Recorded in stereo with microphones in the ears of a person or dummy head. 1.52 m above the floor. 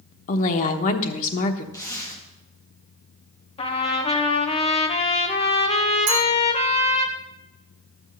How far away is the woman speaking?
About 1.1 m.